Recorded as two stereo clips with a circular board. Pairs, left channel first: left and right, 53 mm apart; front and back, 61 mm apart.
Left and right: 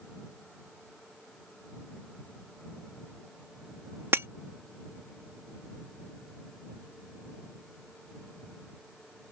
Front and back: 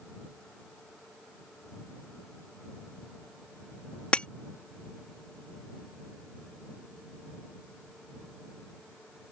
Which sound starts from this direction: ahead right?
Breaking glass, at 4.1 s.